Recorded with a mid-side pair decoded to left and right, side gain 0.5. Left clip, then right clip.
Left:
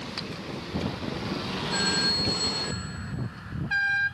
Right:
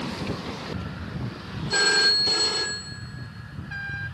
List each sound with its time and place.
1.7 s a phone ringing: 55° right, 2.5 m